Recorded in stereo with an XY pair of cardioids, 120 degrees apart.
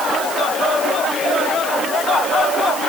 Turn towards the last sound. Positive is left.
No sound to turn to.